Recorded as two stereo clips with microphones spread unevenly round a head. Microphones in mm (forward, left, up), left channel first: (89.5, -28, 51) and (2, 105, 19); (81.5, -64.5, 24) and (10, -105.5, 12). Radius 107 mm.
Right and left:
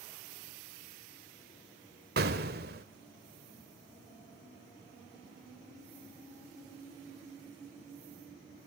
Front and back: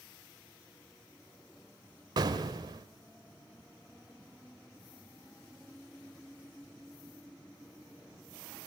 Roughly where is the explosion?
Behind.